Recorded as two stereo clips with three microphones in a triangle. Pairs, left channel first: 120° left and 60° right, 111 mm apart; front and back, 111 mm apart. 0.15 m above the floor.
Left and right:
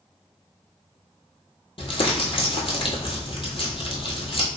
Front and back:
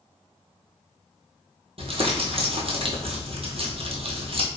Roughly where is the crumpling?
Behind left.